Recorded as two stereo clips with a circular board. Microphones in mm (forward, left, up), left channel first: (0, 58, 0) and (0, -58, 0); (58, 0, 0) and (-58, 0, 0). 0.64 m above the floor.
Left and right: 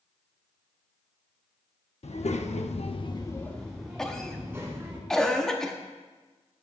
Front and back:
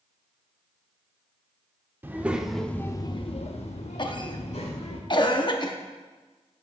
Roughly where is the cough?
Ahead.